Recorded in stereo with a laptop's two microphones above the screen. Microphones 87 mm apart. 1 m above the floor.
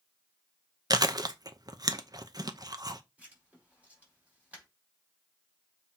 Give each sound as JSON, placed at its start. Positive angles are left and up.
{"t": 0.9, "sound": "chewing", "side_deg": -45, "distance_m": 0.8}
{"t": 3.2, "sound": "writing", "side_deg": -15, "distance_m": 5.0}